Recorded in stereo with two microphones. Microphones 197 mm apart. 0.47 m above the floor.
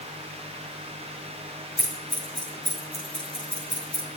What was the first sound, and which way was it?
Scissors, 65° left (ahead or behind).